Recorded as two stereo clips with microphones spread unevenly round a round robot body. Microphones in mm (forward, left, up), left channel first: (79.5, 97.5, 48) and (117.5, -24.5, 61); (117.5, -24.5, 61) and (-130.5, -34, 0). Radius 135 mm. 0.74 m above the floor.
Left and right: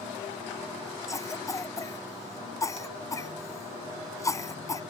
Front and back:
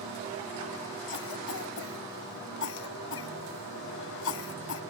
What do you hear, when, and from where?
1.1 s a cough: 40° left